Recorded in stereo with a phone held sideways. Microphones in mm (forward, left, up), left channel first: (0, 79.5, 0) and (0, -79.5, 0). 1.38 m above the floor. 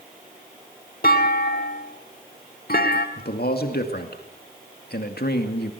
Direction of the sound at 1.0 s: 70° left (ahead or behind).